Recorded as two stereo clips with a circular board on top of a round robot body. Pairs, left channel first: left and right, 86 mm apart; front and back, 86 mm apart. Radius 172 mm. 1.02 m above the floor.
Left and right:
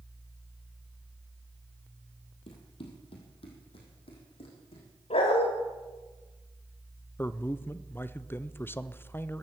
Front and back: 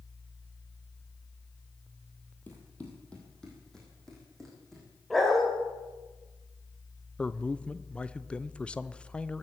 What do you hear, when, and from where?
2.5 s running footsteps: 70° left, 2.0 m; by 4.8 s 90° left, 4 m
5.1 s a dog barking: 90° left, 1.5 m
7.2 s a man speaking: 65° left, 0.8 m